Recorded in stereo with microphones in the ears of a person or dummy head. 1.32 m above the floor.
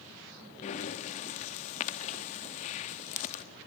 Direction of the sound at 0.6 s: 30° left (ahead or behind).